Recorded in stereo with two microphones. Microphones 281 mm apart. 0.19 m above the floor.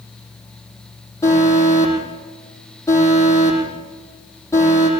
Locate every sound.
1.2 s an alarm: 10° left (ahead or behind), 9 m